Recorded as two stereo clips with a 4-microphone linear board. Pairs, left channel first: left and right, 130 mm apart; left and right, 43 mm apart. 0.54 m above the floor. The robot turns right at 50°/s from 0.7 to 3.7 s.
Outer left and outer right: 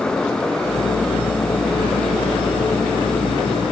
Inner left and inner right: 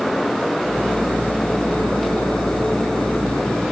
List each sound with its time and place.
Only background noise.